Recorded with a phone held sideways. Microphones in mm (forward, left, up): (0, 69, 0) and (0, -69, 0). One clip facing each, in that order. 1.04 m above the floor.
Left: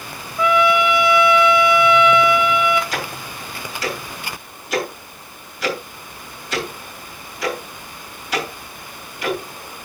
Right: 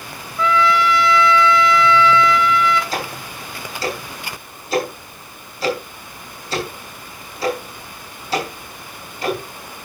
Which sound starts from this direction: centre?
A trumpet, at 0.4 s.